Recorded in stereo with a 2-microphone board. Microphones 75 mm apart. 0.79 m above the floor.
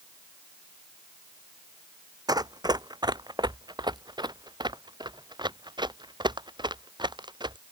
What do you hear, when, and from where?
2.3 s running footsteps: 60° right (ahead or behind); by 7.6 s 80° right